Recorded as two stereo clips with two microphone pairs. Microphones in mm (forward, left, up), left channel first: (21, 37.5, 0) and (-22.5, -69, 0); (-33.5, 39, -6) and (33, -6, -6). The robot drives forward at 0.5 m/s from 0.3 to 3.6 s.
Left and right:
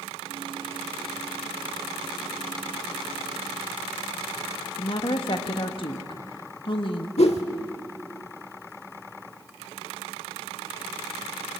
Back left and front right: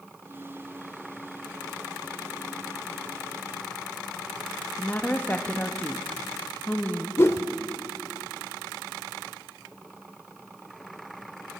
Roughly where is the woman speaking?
Left.